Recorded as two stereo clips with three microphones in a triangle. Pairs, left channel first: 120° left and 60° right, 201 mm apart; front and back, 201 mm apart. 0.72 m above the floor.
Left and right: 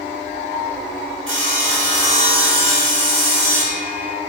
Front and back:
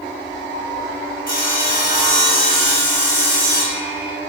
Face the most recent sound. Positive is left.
turn(degrees=-45)